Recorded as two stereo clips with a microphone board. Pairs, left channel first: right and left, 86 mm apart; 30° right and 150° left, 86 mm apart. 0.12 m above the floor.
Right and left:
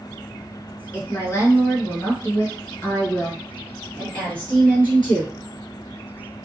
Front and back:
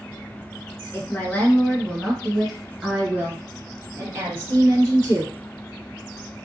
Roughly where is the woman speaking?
Right.